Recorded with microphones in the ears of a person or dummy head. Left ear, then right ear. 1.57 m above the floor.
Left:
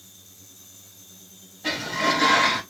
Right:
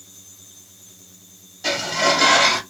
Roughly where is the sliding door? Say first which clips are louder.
Right 4 dB; right.